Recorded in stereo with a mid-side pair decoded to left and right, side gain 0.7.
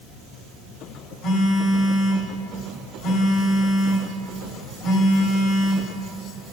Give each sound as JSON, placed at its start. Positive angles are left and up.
{"t": 1.2, "sound": "a phone buzzing", "azimuth_deg": 50, "distance_m": 4.5}